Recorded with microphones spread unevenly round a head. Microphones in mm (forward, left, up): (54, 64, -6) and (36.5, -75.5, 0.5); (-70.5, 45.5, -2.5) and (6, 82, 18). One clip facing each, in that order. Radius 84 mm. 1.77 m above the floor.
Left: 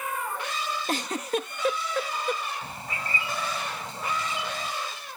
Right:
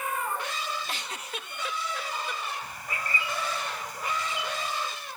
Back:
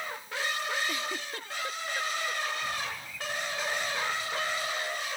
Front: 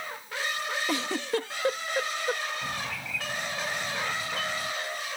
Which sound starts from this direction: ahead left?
A giggle, at 0.9 s.